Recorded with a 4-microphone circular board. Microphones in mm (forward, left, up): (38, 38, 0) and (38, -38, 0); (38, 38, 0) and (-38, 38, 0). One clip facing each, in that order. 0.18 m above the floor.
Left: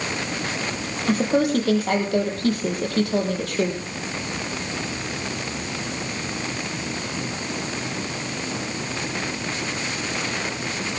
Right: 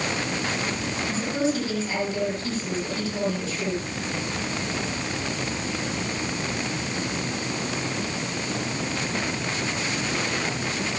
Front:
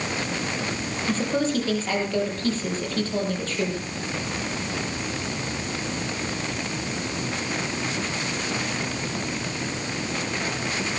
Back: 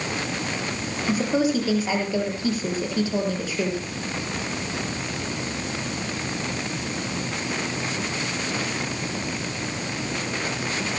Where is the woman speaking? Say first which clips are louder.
Left 6 dB, back 3 dB; 100° left, 5.5 m.